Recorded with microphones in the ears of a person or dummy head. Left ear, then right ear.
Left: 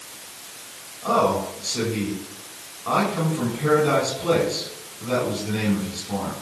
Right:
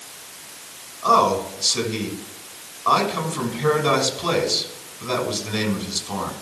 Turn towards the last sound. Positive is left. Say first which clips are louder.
# right 4 dB
turn(degrees=-50)  # may be behind; listen again after turning